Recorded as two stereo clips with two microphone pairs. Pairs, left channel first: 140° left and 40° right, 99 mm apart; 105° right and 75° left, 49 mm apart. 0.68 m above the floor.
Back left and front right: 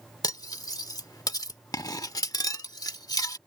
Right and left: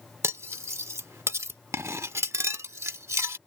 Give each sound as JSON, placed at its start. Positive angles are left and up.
{"t": 0.2, "sound": "cutlery clinking", "azimuth_deg": 95}